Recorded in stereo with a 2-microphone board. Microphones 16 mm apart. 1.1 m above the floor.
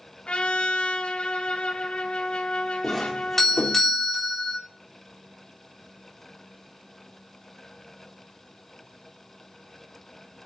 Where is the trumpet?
70° left (ahead or behind), 2 m.